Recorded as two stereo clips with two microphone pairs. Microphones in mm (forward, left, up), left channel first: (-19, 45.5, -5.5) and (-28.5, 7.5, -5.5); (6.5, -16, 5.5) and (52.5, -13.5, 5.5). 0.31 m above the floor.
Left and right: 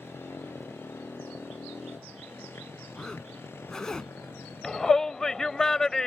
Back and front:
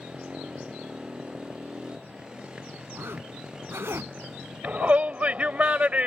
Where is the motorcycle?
70° left; by 6.1 s 75° left.